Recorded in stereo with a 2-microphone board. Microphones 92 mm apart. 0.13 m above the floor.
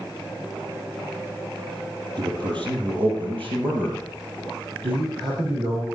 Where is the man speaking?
60° right (ahead or behind), 4 m.